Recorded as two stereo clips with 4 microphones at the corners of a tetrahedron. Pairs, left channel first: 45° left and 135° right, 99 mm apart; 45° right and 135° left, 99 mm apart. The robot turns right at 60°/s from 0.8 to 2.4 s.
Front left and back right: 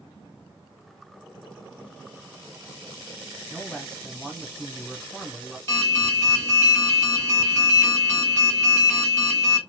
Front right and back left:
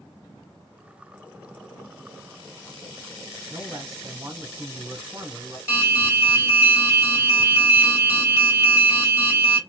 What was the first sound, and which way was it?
A man speaking, 125° left.